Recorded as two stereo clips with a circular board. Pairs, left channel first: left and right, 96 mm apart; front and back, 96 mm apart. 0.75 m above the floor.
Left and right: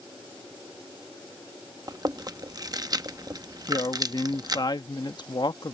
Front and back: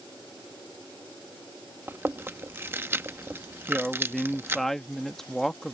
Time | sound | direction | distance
1.9 | chewing | 120° right | ?
3.7 | a woman speaking | 85° left | ?